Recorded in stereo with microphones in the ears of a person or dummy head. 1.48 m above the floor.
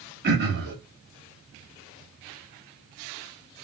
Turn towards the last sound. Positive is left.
turn(degrees=-55)  # may be behind; listen again after turning